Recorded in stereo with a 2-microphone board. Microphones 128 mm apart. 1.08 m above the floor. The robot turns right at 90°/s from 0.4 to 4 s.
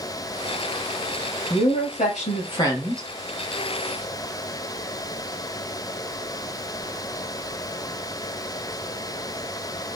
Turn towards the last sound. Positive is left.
turn(degrees=-90)